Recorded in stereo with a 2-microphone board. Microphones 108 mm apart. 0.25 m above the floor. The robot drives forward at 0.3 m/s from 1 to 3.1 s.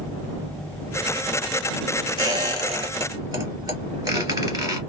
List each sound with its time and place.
2.2 s a squeak: 40° right (ahead or behind), 1.4 m; by 4.8 s 35° right (ahead or behind), 1.6 m